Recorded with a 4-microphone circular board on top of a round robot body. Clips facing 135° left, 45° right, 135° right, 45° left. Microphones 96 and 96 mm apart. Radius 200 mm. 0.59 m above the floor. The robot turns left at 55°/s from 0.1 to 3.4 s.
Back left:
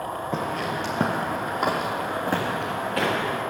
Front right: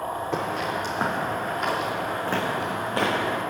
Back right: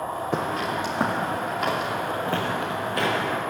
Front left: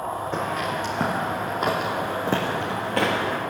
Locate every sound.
0.3 s footsteps: 150° right, 0.6 m; by 3.4 s 5° right, 3 m